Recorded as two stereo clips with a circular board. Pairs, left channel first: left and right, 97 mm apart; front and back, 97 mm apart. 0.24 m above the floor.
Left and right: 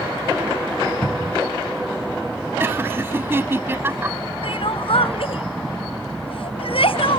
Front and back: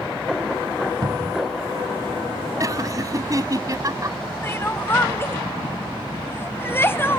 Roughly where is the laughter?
Behind right.